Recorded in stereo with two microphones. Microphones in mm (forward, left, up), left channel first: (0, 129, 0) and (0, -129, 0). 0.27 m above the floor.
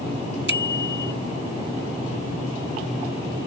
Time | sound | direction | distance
0.5 | a bicycle bell | 45° right (ahead or behind) | ?